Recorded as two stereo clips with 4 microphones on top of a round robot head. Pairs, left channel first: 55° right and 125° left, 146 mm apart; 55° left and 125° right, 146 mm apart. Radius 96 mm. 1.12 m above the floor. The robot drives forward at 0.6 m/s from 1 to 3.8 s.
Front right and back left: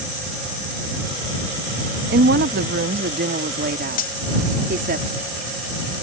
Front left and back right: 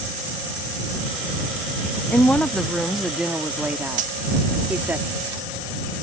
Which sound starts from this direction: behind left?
A woman speaking, at 2.1 s.